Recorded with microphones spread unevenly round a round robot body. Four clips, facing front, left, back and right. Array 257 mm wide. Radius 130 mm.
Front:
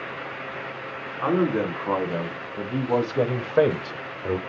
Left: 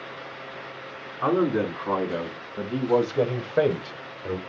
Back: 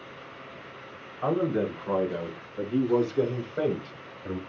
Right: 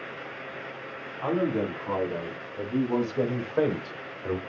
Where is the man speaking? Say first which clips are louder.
Left 4 dB, front 3 dB; 50° left, 4 m; by 4.4 s 15° right, 0.9 m.